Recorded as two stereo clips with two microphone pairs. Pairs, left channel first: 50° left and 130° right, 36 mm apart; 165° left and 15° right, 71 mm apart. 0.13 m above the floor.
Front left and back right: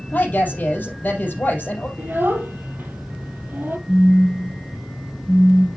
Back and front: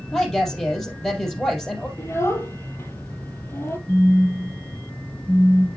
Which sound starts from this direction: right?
A phone buzzing, at 3.9 s.